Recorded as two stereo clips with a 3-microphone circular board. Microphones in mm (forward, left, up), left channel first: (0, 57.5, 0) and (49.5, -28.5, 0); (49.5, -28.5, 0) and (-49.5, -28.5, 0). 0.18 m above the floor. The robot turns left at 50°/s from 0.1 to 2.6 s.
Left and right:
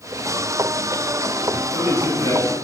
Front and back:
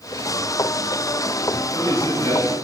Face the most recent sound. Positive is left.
turn(degrees=-65)